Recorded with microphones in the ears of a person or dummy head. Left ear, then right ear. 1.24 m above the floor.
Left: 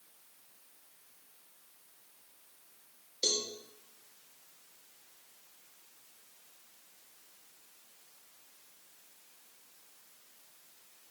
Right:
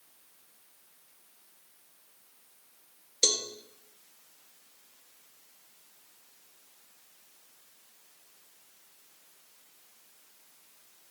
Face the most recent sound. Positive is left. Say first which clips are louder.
# right 5 dB
turn(degrees=-50)  # may be behind; listen again after turning